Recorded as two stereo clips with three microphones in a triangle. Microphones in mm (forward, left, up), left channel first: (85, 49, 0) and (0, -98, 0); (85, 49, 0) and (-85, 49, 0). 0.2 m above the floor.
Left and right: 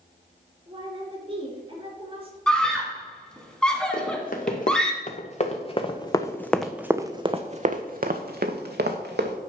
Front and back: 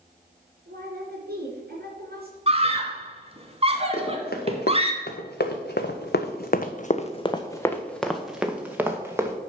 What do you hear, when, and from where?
0.7 s a woman speaking: 175° right, 3.5 m
2.5 s a scream: 145° left, 1.6 m
3.9 s running footsteps: 25° left, 1.9 m; by 9.4 s 105° right, 1.6 m